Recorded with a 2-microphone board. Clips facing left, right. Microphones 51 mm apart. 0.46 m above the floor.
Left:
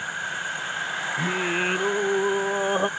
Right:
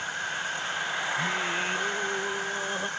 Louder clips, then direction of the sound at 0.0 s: Left 2 dB; 10° left (ahead or behind).